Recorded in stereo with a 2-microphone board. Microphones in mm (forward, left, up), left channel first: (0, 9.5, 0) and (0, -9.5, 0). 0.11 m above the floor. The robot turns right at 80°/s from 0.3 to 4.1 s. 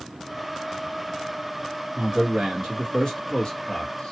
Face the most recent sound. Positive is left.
turn(degrees=110)